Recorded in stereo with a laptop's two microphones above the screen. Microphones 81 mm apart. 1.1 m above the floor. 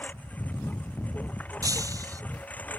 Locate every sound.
0.0 s a lawn mower: 20° left (ahead or behind)
1.6 s breaking glass: 45° right (ahead or behind)